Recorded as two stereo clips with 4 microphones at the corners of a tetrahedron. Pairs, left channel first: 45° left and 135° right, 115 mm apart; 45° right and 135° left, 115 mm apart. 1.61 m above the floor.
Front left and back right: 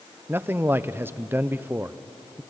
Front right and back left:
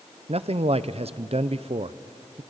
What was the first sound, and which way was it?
A man speaking, 160° left.